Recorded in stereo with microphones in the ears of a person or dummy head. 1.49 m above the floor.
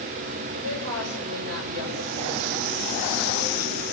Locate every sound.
0.5 s a woman speaking: 85° right, 8 m